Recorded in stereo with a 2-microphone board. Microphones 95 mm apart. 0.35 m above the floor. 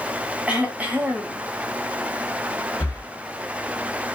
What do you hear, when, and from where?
0.5 s throat clearing: 15° right (ahead or behind), 1.4 m
2.8 s breathing: 20° left (ahead or behind), 1.5 m